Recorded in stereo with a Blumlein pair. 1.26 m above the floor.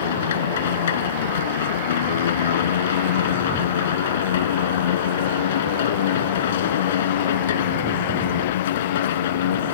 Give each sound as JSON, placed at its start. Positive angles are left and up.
{"t": 0.0, "sound": "a machine running", "azimuth_deg": 60}